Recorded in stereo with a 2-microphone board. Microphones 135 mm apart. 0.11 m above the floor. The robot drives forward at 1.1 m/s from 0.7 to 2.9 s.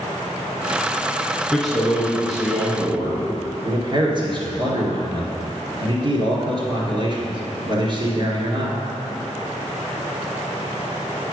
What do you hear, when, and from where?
1.5 s a man speaking: centre (ahead or behind), 1.3 m
3.6 s a man speaking: 40° right (ahead or behind), 1.8 m